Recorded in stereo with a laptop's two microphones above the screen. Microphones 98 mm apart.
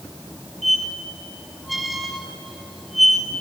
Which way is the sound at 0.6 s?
Centre (ahead or behind).